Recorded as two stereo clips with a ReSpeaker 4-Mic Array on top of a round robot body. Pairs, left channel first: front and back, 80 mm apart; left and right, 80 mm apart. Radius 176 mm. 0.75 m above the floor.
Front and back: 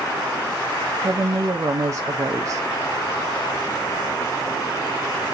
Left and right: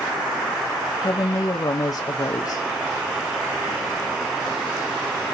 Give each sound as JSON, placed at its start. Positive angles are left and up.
{"t": 1.0, "sound": "a woman speaking", "azimuth_deg": 130, "distance_m": 0.9}